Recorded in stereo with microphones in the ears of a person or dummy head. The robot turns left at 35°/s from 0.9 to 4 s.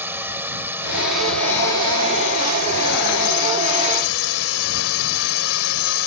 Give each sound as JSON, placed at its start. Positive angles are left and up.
{"t": 0.0, "sound": "a drone", "azimuth_deg": -170}